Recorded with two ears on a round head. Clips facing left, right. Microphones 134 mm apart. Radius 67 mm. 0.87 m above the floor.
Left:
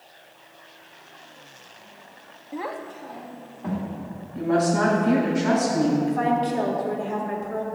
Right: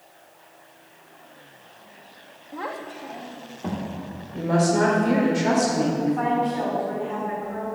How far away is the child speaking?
About 0.8 m.